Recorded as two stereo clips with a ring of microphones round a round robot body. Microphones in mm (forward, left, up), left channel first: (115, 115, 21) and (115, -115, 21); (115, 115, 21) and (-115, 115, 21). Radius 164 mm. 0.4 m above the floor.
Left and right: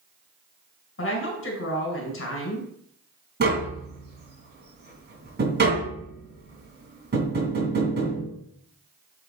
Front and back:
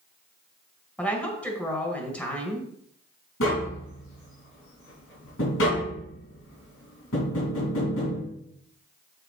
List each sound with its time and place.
1.0 s a woman speaking: 85° left, 2.5 m
3.4 s tapping: 45° right, 2.5 m